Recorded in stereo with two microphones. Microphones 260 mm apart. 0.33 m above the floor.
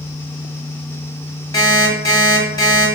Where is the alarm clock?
15° left (ahead or behind), 1.2 m.